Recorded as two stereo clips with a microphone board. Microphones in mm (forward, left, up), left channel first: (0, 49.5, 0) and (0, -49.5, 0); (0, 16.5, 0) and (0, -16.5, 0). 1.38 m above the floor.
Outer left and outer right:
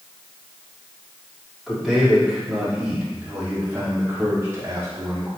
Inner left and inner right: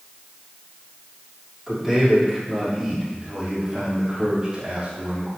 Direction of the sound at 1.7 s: Centre (ahead or behind).